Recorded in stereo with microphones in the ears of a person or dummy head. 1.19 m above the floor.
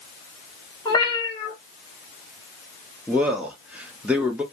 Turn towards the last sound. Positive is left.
turn(degrees=-5)  # may be behind; listen again after turning